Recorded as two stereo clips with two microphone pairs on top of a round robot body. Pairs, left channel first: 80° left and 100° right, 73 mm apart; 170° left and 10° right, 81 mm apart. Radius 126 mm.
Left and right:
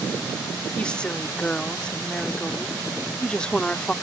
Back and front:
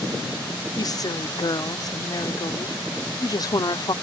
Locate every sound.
0.8 s a woman speaking: 155° left